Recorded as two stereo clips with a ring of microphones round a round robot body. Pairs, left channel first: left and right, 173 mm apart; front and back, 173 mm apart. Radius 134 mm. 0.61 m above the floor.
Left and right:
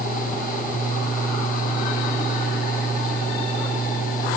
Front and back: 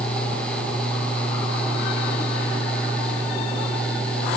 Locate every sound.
Only background noise.